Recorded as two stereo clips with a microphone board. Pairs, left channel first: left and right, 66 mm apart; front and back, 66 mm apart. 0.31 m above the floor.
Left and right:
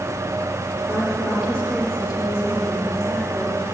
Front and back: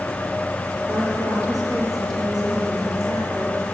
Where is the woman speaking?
175° left, 5.5 m; by 3.6 s 150° right, 6.5 m.